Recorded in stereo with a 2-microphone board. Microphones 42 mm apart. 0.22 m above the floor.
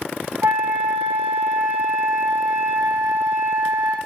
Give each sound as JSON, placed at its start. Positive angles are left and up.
{"t": 0.4, "sound": "a flute", "side_deg": -80, "distance_m": 4.5}